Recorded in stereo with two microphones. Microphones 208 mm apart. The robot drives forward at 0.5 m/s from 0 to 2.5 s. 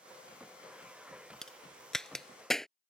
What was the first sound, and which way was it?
A crack, 5° left (ahead or behind).